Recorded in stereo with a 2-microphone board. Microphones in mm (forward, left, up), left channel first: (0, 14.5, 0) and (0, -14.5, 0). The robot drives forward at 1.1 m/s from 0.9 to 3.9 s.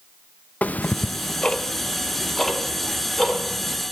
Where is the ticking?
60° left (ahead or behind), 0.5 m; by 3.8 s 10° left (ahead or behind), 3 m.